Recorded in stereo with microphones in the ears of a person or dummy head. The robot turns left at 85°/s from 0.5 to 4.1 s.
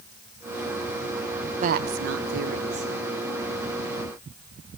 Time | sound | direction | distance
1.6 | a woman speaking | 40° right | 1.1 m